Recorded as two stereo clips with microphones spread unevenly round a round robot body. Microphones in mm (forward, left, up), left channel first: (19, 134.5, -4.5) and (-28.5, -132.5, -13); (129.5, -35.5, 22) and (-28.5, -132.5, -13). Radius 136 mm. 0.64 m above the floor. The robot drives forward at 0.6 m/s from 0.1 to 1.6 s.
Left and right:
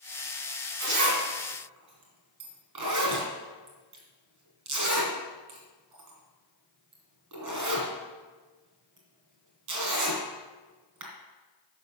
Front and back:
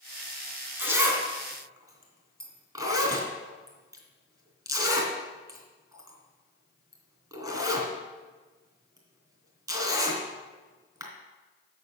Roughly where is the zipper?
Right.